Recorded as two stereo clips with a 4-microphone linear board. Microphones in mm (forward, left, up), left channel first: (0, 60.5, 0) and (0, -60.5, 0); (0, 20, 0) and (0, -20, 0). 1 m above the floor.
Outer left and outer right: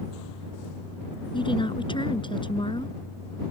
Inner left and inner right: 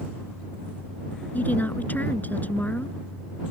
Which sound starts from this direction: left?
A woman speaking, at 1.3 s.